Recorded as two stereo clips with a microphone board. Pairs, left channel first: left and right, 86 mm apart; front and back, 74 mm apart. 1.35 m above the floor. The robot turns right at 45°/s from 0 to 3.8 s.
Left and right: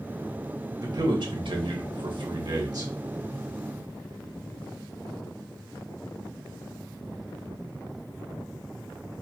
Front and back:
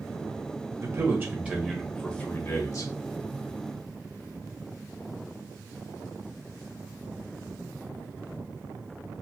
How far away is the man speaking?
About 1.0 m.